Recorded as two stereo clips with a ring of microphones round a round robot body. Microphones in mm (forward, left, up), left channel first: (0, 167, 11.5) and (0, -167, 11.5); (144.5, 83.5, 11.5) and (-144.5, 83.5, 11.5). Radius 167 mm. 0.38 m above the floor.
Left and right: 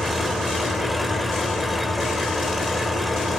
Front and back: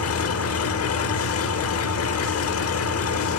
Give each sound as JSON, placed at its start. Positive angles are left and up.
{"t": 0.0, "sound": "an engine running", "azimuth_deg": 0, "distance_m": 1.0}